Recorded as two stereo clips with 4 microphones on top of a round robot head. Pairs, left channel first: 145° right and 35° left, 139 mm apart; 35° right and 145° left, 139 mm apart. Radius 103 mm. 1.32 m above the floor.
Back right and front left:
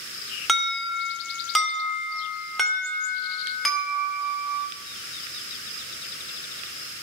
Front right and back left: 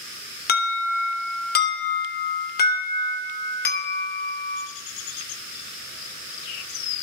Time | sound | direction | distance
0.5 | an alarm | 55° right | 2.5 m